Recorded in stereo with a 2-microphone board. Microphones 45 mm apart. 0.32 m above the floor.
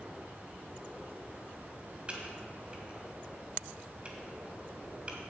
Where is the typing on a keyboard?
30° right (ahead or behind), 2 m.